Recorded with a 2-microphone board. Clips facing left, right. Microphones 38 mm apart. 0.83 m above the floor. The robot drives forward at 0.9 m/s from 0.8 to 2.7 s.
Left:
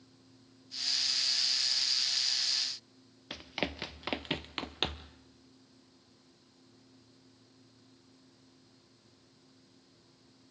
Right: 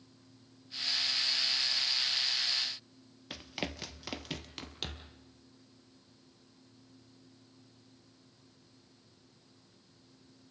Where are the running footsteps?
10° left (ahead or behind), 0.9 m; by 5.1 s 50° left (ahead or behind), 1.2 m.